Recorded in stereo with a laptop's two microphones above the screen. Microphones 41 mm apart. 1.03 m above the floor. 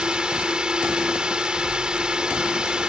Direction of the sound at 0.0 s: 25° right (ahead or behind).